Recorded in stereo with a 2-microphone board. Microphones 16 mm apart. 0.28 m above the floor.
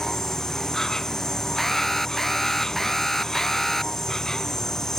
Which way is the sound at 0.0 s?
30° left (ahead or behind).